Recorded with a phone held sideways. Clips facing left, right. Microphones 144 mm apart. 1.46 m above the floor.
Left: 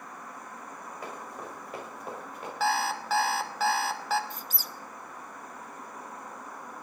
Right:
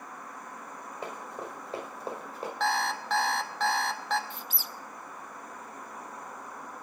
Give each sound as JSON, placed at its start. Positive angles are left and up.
{"t": 1.0, "sound": "running footsteps", "side_deg": -25, "distance_m": 5.5}
{"t": 2.6, "sound": "an alarm clock", "side_deg": 5, "distance_m": 0.9}
{"t": 4.3, "sound": "a squeak", "side_deg": 45, "distance_m": 0.6}